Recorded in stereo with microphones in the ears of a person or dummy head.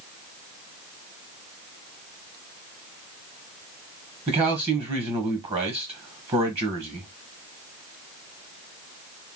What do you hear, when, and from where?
4.3 s a man speaking: 30° right (ahead or behind), 1.0 m